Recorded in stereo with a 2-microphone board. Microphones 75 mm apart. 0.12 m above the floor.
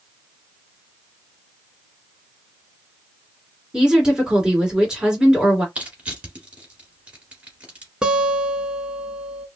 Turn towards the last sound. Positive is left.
turn(degrees=-10)  # may be behind; listen again after turning